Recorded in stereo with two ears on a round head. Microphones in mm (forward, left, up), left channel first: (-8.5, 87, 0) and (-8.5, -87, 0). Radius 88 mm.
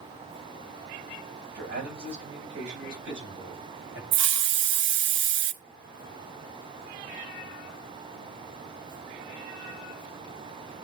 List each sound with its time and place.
1.6 s a man speaking: 55° right (ahead or behind), 6.5 m; by 4.0 s 70° right (ahead or behind), 9 m
4.1 s a hiss: 60° right (ahead or behind), 0.5 m